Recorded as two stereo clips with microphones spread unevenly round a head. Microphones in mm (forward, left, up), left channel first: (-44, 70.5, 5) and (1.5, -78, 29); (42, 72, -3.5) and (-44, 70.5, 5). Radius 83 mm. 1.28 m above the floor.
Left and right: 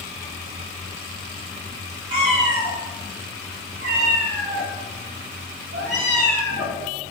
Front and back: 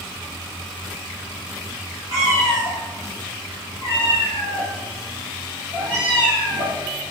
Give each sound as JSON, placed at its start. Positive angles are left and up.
{"t": 2.1, "sound": "a cat meowing", "azimuth_deg": -120, "distance_m": 3.0}